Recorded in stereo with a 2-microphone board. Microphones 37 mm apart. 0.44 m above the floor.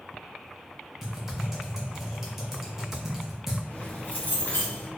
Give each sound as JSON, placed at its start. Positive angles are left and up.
{"t": 1.0, "sound": "typing on a keyboard", "side_deg": -10, "distance_m": 1.0}
{"t": 3.7, "sound": "keys jangling", "side_deg": 50, "distance_m": 1.0}